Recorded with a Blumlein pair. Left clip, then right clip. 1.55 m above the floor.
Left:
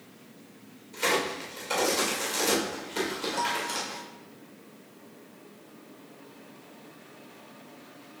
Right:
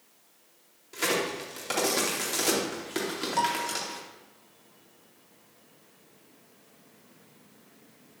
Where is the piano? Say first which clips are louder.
Right 3 dB; 50° right, 0.9 m.